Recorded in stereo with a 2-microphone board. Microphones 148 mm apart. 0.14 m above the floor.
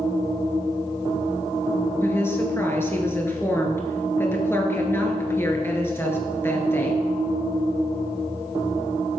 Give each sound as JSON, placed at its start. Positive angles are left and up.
{"t": 2.0, "sound": "a woman speaking", "side_deg": 15, "distance_m": 2.5}